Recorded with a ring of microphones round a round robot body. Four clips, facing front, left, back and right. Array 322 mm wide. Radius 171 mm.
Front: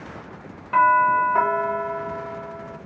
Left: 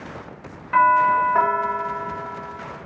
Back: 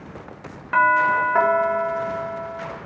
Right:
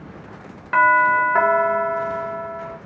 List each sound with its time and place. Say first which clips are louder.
0.7 s a doorbell: even, front 1 dB; 120° right, 0.7 m